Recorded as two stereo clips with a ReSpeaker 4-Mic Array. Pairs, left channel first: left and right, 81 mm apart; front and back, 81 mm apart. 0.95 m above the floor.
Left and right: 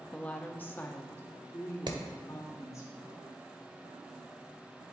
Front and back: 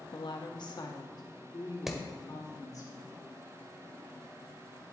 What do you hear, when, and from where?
0.1 s a woman speaking: 15° left, 0.9 m; by 2.9 s 40° left, 3 m
1.9 s hammering: 95° right, 1.2 m